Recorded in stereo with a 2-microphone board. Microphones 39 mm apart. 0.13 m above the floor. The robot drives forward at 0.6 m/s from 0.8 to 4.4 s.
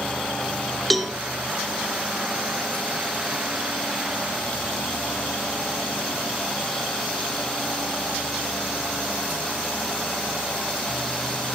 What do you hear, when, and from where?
0.9 s a cowbell: centre (ahead or behind), 0.8 m